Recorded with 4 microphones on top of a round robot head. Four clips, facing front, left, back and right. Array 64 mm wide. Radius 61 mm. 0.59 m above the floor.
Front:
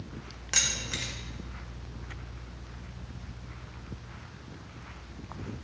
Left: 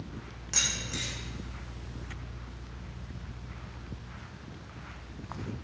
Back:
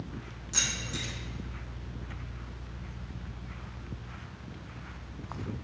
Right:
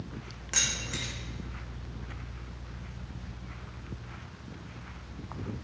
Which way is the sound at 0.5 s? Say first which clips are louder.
Right 1 dB, front 2 dB; 20° right.